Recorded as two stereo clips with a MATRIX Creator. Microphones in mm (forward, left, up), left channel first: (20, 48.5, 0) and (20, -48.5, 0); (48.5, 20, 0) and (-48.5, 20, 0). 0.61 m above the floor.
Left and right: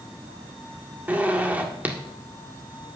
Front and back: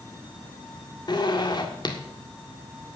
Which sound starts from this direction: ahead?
A zipper, at 1.1 s.